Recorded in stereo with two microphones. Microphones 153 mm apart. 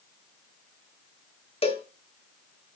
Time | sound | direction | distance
1.6 | a cowbell | 45° left (ahead or behind) | 0.8 m